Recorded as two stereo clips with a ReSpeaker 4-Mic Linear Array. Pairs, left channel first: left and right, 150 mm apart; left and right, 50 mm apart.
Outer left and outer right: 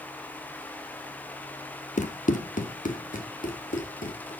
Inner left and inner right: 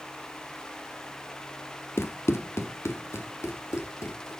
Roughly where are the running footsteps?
Left.